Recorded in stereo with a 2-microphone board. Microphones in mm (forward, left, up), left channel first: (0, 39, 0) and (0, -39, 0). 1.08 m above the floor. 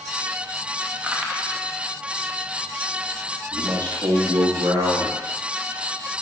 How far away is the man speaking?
About 1.9 m.